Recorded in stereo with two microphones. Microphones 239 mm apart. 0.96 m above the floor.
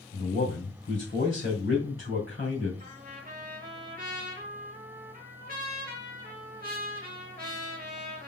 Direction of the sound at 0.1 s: 60° left (ahead or behind).